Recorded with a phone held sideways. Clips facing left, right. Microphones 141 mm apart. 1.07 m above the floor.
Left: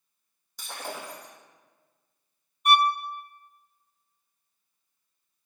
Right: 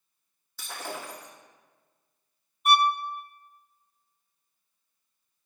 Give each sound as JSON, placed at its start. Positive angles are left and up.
{"t": 0.6, "sound": "breaking glass", "side_deg": 15, "distance_m": 3.5}
{"t": 2.6, "sound": "a violin", "side_deg": 0, "distance_m": 0.7}